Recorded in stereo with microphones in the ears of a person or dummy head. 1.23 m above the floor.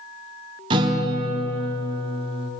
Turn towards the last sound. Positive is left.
turn(degrees=-30)  # may be behind; listen again after turning